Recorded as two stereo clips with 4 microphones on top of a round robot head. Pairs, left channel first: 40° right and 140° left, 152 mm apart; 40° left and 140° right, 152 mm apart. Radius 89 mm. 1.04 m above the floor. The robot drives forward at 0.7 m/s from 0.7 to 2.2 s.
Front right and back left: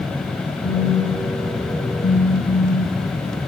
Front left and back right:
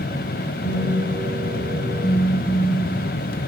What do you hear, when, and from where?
0.6 s a phone buzzing: 15° right, 6.5 m